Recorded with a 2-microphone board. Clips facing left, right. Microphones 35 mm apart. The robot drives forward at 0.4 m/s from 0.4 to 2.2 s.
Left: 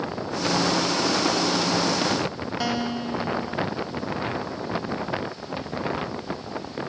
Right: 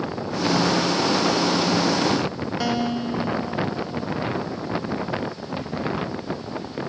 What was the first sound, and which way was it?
A guitar, centre (ahead or behind).